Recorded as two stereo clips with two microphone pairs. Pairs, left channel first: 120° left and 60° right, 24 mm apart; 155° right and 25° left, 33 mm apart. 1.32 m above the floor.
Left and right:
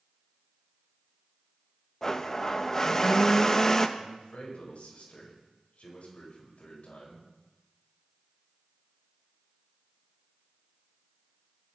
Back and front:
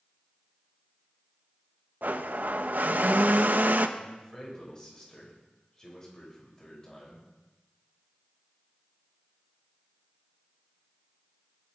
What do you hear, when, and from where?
2.0 s a blender: 50° left, 1.0 m
4.0 s a man speaking: 140° left, 7.5 m